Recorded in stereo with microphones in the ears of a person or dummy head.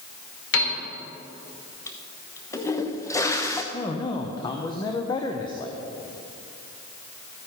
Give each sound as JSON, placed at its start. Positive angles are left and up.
{"t": 0.5, "sound": "a piano", "side_deg": 70, "distance_m": 3.0}
{"t": 1.9, "sound": "a toilet flushing", "side_deg": 15, "distance_m": 0.8}
{"t": 3.7, "sound": "a man speaking", "side_deg": 20, "distance_m": 0.8}